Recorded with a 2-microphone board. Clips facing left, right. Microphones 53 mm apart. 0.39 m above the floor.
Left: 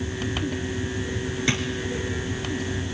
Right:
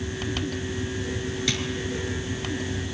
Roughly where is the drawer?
Left.